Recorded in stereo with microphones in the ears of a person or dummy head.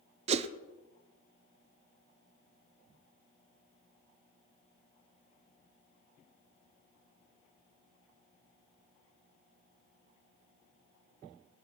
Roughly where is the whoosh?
Right.